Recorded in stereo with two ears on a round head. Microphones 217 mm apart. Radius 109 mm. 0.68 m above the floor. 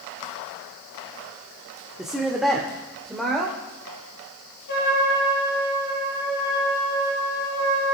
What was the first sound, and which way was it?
A woman speaking, centre (ahead or behind).